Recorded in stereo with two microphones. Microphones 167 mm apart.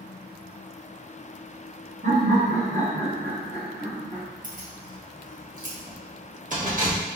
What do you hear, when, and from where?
2.0 s laughter: 80° right, 1.2 m; by 4.2 s 50° right (ahead or behind), 3 m
4.4 s keys jangling: 50° right (ahead or behind), 1.3 m